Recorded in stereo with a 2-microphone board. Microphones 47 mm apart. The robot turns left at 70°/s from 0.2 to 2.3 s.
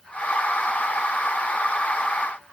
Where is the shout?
No shout in this recording.